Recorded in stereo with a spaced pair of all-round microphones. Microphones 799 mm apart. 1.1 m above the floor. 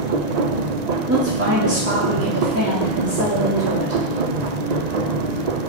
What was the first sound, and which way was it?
A machine running, 60° right (ahead or behind).